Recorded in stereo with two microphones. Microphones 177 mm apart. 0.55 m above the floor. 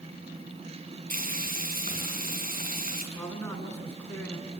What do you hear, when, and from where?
1.1 s frying: 55° right (ahead or behind), 5 m
3.1 s a man speaking: 10° left (ahead or behind), 5 m